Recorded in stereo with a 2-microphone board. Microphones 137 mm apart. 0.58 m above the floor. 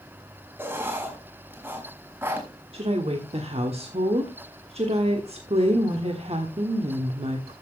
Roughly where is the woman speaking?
Right.